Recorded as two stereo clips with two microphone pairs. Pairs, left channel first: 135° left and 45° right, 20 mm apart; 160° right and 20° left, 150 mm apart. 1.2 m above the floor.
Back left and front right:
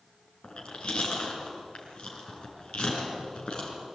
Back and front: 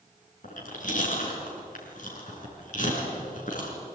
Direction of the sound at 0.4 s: 175° left.